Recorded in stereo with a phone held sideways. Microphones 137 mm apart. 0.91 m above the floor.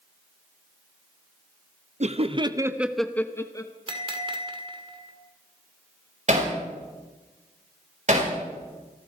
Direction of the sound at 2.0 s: 55° right (ahead or behind).